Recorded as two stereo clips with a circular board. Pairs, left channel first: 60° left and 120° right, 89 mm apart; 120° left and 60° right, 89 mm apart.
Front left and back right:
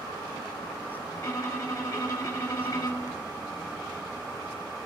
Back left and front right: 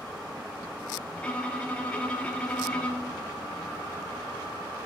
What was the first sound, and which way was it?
A violin, 60° left.